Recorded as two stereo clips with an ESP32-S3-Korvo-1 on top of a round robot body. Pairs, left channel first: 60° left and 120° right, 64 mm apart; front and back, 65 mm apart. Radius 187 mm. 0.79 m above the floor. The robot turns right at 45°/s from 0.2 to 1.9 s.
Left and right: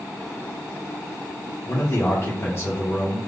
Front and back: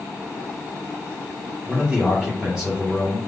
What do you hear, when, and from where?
1.7 s a man speaking: 90° left, 0.8 m; by 3.2 s 100° left, 0.8 m